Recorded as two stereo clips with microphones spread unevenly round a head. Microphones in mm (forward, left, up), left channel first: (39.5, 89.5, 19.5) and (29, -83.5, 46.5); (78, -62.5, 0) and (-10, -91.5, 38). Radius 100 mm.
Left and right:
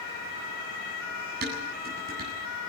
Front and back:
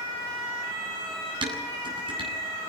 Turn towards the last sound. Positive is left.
turn(degrees=-135)